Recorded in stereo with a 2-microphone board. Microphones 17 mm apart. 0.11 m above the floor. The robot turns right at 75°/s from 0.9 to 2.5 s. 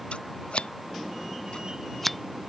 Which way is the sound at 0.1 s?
80° left.